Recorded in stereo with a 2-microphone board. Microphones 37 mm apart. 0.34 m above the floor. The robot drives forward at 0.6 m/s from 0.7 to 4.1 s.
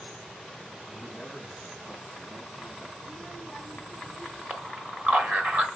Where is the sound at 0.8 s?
10° right (ahead or behind), 2.5 m; by 2.9 s 5° right (ahead or behind), 3.5 m.